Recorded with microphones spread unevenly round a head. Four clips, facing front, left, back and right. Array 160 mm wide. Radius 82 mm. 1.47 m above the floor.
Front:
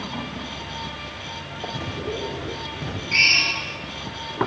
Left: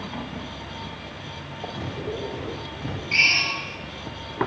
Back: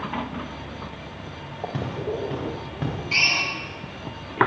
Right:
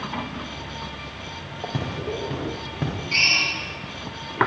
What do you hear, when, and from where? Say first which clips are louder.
1.7 s footsteps: right 2 dB, back 2 dB; 110° right, 9.5 m
3.1 s a drill: left 1 dB, front 5 dB; 170° right, 8 m